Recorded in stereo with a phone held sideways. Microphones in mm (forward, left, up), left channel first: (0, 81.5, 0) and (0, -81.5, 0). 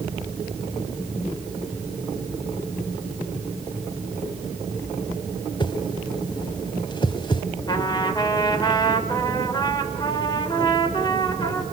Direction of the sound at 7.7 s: 25° left (ahead or behind).